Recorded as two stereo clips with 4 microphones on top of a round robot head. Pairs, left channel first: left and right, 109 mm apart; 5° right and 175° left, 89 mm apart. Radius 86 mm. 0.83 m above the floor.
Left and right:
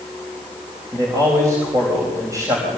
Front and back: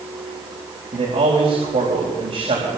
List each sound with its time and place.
0.9 s a man speaking: 150° right, 4 m